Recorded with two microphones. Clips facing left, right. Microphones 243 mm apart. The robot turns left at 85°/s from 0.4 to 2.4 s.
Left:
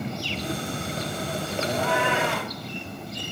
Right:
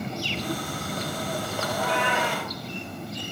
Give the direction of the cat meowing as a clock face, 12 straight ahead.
10 o'clock.